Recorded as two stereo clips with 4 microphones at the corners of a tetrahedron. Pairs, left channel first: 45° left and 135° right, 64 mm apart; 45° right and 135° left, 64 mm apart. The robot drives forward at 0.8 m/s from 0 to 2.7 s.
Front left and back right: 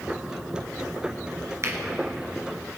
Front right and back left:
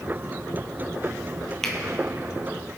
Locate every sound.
1.6 s a finger snap: 125° right, 1.8 m; by 1.8 s 130° right, 1.8 m